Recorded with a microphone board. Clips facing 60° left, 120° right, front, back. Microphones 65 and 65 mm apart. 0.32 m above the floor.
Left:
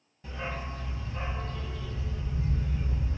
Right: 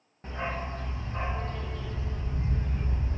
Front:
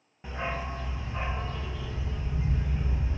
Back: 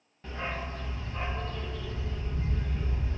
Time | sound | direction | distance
0.2 | a dog barking | 75° right | 0.6 m